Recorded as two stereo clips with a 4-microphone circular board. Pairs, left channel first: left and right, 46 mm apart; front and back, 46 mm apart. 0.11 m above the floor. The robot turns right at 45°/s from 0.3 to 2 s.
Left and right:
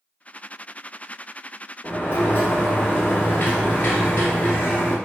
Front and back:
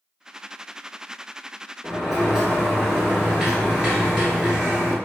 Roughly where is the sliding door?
Left.